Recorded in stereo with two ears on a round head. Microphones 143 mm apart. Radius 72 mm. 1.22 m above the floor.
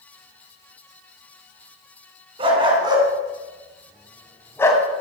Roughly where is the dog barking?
Right.